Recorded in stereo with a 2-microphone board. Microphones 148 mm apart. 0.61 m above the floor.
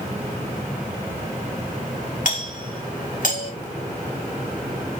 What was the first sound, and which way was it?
A doorbell, 65° left (ahead or behind).